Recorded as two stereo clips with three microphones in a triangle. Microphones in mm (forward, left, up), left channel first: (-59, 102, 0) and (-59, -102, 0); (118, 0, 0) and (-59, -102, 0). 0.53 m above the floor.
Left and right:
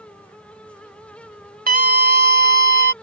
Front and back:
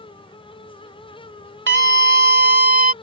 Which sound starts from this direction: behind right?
A scream, at 1.7 s.